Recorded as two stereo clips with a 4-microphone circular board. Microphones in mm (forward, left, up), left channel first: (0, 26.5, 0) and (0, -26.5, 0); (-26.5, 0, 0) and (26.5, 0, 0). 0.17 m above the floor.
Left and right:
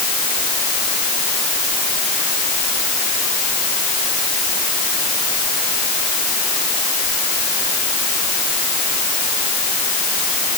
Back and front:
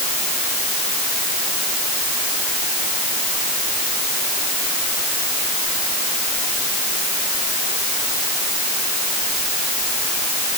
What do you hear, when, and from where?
Only background noise.